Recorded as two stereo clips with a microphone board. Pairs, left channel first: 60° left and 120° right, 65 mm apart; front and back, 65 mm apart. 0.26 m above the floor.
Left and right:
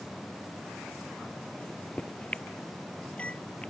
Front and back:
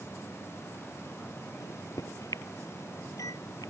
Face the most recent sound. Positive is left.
turn(degrees=-10)